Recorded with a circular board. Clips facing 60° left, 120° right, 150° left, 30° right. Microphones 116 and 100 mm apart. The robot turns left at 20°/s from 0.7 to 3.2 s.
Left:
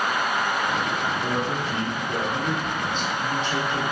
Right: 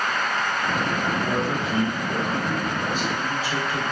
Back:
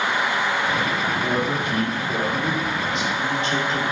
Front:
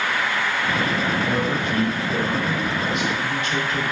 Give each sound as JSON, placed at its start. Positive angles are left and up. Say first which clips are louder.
{"t": 1.2, "sound": "a man speaking", "louder": "right 1 dB, even", "azimuth_deg": -160, "distance_m": 1.1}